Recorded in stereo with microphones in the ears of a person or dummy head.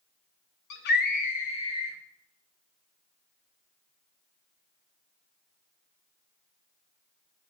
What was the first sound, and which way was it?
A scream, 60° left (ahead or behind).